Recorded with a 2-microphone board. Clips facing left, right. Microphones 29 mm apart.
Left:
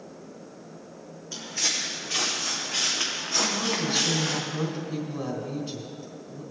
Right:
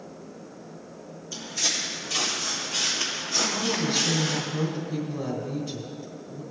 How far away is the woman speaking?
About 3.5 m.